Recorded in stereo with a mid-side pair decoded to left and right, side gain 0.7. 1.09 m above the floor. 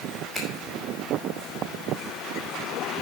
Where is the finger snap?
5° left, 5.5 m.